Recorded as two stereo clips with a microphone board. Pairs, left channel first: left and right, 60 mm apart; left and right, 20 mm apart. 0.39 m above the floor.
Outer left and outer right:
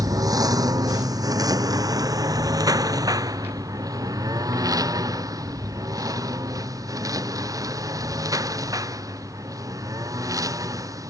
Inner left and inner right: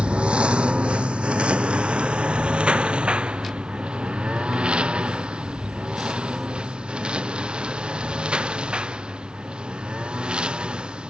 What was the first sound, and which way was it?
A lawn mower, 80° right.